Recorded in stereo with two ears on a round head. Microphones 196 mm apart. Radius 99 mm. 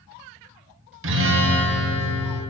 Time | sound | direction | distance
1.0 | a guitar | 65° right (ahead or behind) | 1.1 m